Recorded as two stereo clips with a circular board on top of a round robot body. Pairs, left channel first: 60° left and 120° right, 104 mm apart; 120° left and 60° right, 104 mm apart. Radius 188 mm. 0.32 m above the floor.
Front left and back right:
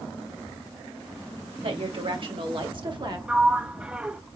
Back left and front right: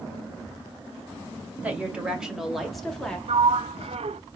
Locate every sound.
1.6 s a woman speaking: 135° right, 2.5 m; by 3.2 s 160° right, 2.5 m
3.3 s a sliding door: 40° right, 0.5 m